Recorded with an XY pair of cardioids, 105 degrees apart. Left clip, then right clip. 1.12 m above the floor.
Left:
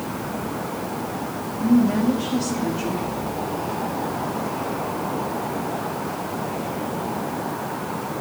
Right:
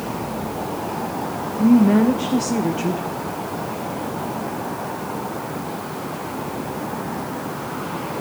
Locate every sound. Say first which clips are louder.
1.6 s a woman speaking: right 4 dB; 55° right, 0.6 m